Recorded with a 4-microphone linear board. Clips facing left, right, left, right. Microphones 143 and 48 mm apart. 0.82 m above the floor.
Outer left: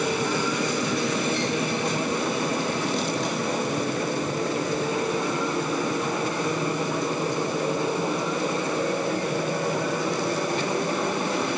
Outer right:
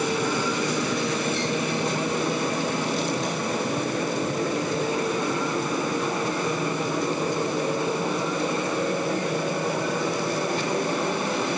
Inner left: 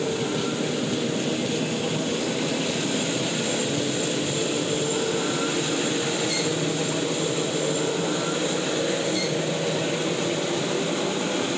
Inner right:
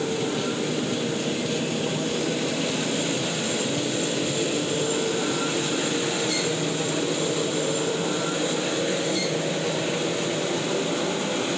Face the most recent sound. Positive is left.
No sound to turn to.